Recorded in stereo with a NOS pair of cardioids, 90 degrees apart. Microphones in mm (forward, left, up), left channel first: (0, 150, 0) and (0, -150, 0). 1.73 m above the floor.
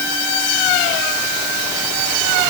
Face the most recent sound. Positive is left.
No sound to turn to.